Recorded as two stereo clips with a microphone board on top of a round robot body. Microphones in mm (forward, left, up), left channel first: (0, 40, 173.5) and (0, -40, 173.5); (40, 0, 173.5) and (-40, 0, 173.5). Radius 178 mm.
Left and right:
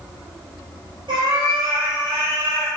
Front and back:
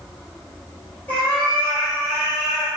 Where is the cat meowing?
70° right, 1.9 m; by 2.7 s 95° right, 1.8 m.